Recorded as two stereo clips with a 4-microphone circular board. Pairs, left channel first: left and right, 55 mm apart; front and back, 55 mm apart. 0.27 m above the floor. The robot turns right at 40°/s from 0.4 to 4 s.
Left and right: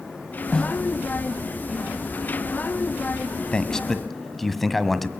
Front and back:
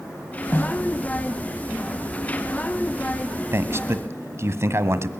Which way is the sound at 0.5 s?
20° left.